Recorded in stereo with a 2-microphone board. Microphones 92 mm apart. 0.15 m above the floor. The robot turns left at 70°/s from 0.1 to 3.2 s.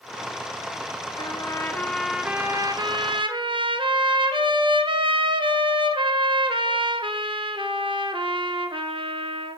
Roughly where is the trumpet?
Ahead left.